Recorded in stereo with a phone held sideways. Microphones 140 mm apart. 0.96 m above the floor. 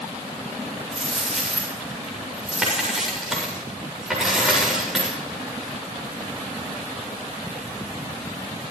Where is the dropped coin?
5° right (ahead or behind), 7 m.